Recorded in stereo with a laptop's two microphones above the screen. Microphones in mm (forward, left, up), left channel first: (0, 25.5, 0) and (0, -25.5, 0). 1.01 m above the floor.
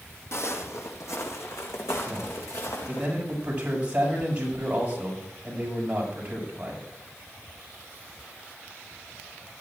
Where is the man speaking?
25° right (ahead or behind), 6.5 m.